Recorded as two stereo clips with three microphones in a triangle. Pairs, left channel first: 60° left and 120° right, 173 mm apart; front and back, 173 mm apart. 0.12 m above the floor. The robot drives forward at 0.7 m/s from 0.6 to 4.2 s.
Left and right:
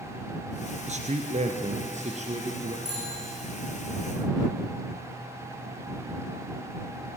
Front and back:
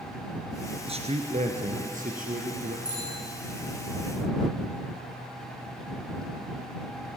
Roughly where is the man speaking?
Behind right.